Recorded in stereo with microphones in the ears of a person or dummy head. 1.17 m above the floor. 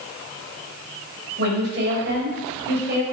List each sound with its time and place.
1.4 s a woman speaking: 70° right (ahead or behind), 5 m